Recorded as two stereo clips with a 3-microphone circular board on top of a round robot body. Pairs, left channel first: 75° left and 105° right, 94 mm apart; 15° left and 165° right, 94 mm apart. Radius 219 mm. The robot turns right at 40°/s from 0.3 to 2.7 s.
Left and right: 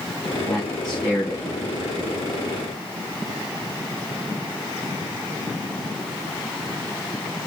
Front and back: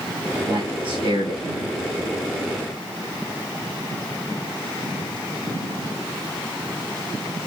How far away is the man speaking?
About 5 m.